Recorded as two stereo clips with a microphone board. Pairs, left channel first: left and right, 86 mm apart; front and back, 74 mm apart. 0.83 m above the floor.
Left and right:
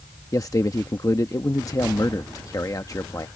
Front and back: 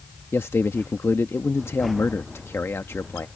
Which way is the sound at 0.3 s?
50° left.